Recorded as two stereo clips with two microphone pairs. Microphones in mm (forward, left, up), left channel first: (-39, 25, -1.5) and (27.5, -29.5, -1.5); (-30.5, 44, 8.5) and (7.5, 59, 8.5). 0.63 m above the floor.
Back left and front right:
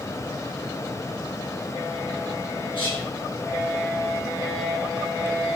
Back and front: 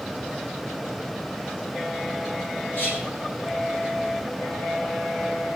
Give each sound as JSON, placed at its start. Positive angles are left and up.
{"t": 2.7, "sound": "whispering", "azimuth_deg": 160, "distance_m": 6.5}